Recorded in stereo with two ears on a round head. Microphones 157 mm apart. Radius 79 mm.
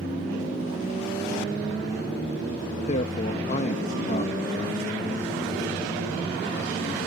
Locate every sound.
2.9 s a man speaking: 45° left (ahead or behind)